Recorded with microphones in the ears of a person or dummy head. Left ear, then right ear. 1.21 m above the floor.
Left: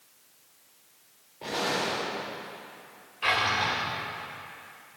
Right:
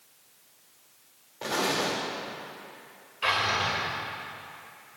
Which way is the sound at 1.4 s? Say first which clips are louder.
Right 1 dB; 50° right (ahead or behind).